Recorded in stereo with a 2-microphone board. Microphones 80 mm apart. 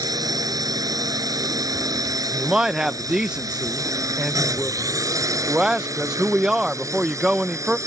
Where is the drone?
50° right (ahead or behind); by 7.9 s 40° right (ahead or behind).